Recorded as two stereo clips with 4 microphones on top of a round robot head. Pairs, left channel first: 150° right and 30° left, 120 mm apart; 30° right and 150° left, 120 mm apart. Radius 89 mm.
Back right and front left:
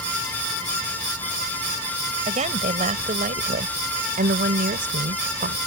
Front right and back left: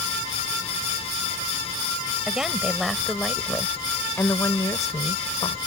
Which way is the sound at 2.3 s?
65° left.